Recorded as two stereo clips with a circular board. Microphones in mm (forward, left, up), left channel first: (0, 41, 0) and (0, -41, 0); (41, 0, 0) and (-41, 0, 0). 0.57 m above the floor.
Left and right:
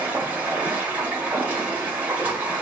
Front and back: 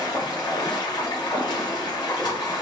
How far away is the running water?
About 1.5 m.